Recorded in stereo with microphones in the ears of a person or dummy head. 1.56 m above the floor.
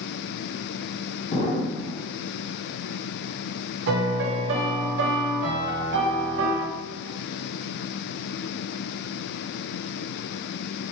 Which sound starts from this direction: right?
A piano, at 3.9 s.